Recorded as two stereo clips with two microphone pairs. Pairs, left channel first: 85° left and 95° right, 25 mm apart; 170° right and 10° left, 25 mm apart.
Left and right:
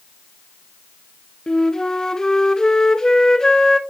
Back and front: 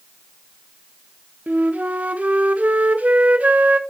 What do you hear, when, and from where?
1.5 s a flute: 20° left, 0.6 m